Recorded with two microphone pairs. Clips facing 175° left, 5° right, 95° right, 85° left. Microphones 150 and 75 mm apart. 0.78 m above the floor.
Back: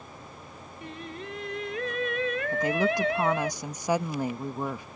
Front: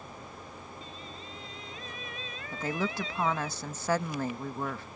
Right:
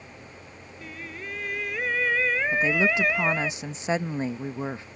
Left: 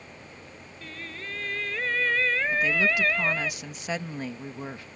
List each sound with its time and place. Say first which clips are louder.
0.8 s singing: back 6 dB, right 1 dB; 175° right
2.5 s a woman speaking: back 5 dB, right 3 dB; 130° right